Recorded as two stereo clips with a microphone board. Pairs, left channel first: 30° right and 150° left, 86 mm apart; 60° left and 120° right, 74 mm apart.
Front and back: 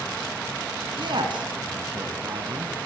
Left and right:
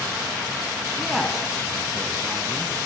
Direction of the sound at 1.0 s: 155° left.